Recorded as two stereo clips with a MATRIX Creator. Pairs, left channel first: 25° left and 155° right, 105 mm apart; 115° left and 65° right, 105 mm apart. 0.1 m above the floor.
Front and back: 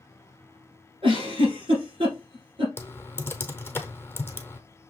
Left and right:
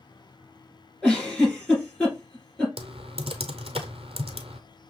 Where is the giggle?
165° right, 3 m.